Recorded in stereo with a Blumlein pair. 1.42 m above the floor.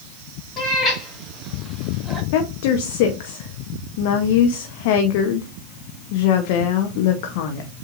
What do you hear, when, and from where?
0.6 s a cat meowing: 15° left, 1.9 m; by 2.2 s 10° right, 1.1 m
2.3 s a woman speaking: 45° left, 0.8 m